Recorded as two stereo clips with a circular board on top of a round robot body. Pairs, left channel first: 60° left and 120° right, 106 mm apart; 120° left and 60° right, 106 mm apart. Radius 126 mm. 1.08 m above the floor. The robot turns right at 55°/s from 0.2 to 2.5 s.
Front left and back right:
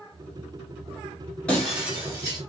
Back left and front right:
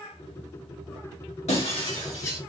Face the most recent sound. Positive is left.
turn(degrees=-165)